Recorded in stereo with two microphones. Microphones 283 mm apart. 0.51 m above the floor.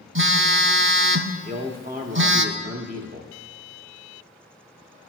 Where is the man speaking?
30° right (ahead or behind), 0.9 m.